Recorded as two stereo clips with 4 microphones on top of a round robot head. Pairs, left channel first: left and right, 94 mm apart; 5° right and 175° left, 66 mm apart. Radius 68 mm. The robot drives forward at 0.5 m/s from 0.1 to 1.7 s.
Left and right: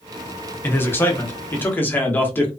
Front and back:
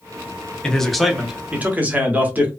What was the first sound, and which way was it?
A man speaking, 55° left.